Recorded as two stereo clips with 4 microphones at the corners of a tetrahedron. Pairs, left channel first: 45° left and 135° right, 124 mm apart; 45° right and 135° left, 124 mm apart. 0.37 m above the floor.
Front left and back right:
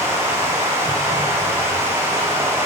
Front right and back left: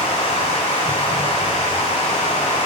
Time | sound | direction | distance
0.0 | running water | 65° right | 1.4 m